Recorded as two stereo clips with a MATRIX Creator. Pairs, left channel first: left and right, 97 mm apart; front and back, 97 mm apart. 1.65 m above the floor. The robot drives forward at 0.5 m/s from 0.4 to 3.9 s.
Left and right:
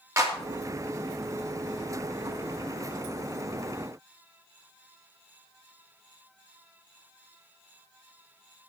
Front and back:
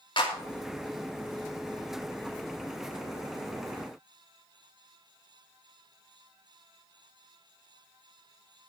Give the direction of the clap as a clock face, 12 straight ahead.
1 o'clock.